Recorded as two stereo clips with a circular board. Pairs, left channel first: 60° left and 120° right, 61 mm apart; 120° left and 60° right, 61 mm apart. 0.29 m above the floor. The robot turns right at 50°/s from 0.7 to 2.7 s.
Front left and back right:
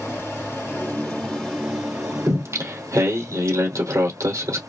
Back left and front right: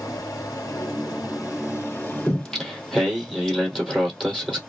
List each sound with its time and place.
0.0 s running water: 120° left, 3 m; by 4.7 s 140° right, 3 m
2.3 s singing: 170° right, 2.5 m; by 4.6 s 145° right, 2.5 m